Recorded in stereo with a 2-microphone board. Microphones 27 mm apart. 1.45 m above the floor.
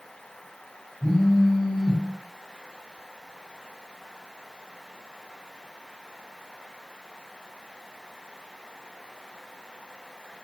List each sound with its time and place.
1.0 s a phone buzzing: 40° left (ahead or behind), 0.8 m